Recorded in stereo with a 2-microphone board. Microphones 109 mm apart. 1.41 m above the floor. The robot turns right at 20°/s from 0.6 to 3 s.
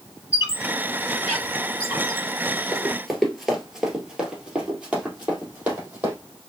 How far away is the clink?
I don't hear a clink.